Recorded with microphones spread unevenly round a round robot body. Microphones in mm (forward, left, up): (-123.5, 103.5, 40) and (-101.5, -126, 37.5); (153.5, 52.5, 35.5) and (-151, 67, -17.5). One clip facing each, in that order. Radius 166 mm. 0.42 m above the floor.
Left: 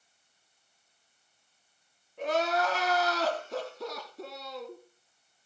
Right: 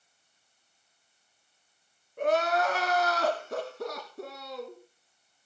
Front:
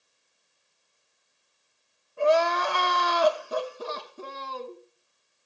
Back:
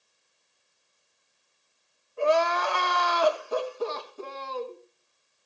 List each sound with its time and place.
2.2 s crying: 25° right, 2.0 m